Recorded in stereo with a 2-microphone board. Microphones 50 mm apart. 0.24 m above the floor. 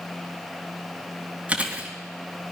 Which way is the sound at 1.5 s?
30° right (ahead or behind).